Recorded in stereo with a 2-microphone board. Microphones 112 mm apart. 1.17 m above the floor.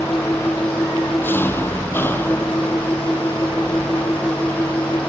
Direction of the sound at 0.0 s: 20° left (ahead or behind).